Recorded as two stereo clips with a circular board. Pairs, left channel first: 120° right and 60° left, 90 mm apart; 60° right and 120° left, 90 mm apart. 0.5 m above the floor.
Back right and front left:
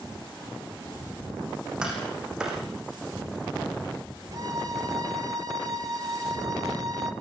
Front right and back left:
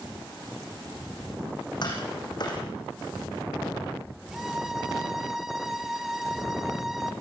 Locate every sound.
1.8 s tapping: 20° right, 5 m
4.3 s a violin: 35° left, 1.4 m